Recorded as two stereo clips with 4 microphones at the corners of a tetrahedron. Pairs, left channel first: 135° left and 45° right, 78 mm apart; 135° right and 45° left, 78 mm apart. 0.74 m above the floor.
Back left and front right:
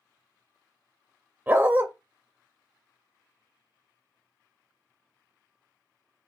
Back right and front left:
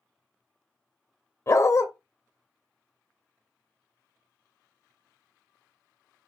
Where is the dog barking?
105° right, 0.6 m.